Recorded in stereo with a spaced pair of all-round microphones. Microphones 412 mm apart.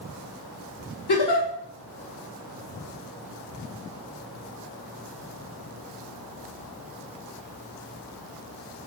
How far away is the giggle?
About 1.0 m.